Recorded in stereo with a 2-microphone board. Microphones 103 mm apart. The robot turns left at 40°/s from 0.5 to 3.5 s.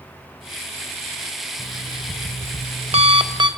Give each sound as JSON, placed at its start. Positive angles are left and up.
{"t": 1.6, "sound": "an alarm clock", "azimuth_deg": -65, "distance_m": 1.6}